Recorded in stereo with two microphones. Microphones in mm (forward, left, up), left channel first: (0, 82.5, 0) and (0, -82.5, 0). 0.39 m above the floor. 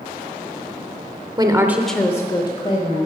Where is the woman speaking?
25° right (ahead or behind), 0.9 m; by 3.1 s 40° left (ahead or behind), 1.7 m.